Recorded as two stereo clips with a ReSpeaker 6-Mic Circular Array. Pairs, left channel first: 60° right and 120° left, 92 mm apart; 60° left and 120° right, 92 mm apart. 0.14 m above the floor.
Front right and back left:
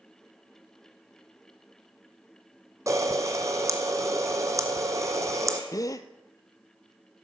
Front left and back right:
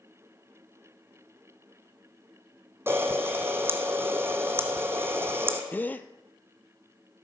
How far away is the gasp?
About 0.6 m.